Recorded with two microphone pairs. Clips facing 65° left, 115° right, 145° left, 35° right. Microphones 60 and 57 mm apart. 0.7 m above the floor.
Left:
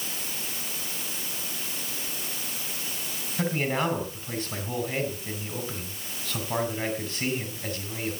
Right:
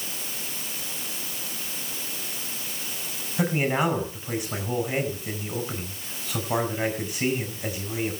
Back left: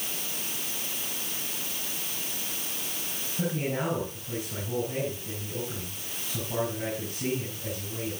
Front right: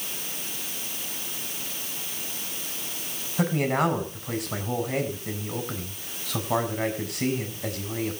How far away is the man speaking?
About 4.5 m.